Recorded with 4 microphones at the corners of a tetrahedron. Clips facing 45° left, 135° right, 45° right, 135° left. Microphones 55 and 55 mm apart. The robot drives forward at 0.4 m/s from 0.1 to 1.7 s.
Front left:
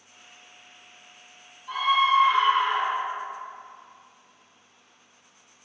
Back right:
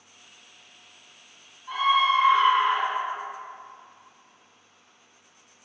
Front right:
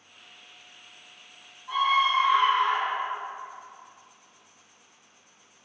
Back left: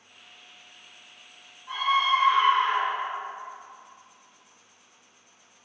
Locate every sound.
1.7 s a scream: 155° left, 1.6 m